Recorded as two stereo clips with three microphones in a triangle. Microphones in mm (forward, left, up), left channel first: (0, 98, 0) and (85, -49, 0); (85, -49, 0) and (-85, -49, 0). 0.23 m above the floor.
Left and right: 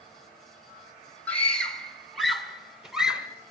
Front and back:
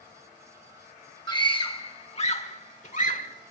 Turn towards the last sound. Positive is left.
turn(degrees=25)